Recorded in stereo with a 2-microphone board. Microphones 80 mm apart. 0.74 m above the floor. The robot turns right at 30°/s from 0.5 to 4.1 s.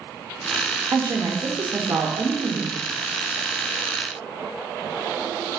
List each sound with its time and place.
0.9 s a woman speaking: 115° right, 0.6 m; by 2.8 s 60° right, 0.6 m